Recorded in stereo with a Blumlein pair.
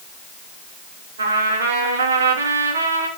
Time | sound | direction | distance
1.2 | a trumpet | 65° right | 3 m